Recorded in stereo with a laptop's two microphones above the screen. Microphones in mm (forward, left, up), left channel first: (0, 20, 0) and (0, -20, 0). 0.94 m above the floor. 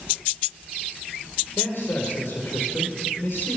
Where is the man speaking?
75° left (ahead or behind), 2.5 m.